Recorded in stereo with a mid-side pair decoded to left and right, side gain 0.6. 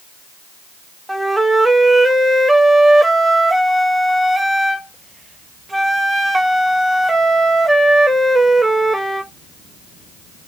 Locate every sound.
1.1 s a flute: 5° right, 0.6 m